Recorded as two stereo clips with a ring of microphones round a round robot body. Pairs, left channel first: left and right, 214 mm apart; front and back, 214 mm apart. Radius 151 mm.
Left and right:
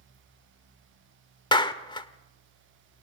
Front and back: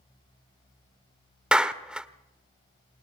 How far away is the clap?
About 1.2 m.